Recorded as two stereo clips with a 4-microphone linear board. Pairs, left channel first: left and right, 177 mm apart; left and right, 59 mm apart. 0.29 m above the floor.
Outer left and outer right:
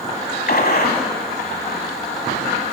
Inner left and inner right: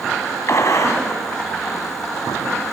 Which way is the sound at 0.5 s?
60° left (ahead or behind).